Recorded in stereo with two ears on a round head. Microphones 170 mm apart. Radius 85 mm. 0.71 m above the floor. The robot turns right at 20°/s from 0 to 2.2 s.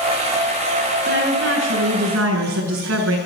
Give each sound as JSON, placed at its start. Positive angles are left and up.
{"t": 1.1, "sound": "a woman speaking", "side_deg": -60, "distance_m": 7.5}